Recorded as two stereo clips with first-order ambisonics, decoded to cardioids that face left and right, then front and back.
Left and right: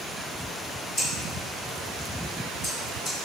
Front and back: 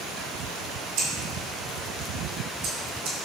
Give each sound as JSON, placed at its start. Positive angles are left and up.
{"t": 1.0, "sound": "scissors", "azimuth_deg": 160, "distance_m": 1.3}